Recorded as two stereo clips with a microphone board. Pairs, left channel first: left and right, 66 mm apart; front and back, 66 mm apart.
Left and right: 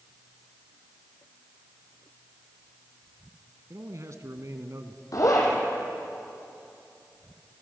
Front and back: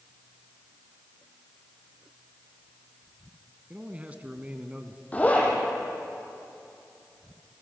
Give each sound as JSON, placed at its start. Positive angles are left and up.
{"t": 3.7, "sound": "a man speaking", "azimuth_deg": -115, "distance_m": 2.0}
{"t": 5.1, "sound": "a zipper", "azimuth_deg": 65, "distance_m": 5.5}